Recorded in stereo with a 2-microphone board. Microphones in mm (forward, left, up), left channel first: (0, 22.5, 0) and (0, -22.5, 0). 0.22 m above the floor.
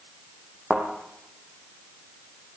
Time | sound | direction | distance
0.7 | a thud | 20° right (ahead or behind) | 5 m